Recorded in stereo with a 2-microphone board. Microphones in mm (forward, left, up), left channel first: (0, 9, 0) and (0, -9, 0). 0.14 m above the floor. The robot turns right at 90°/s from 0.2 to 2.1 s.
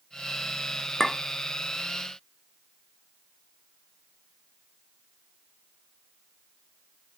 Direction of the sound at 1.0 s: 30° left (ahead or behind).